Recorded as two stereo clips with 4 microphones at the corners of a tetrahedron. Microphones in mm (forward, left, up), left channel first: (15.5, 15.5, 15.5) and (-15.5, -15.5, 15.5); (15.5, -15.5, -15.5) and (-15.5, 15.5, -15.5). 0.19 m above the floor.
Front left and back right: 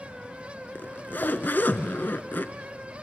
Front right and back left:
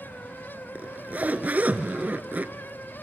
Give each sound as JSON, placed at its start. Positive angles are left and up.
{"t": 0.8, "sound": "a zipper", "azimuth_deg": 85, "distance_m": 0.5}